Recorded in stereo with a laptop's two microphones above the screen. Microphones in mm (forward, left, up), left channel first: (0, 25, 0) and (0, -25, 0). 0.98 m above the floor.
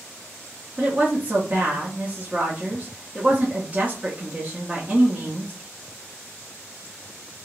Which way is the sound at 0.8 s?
30° right (ahead or behind).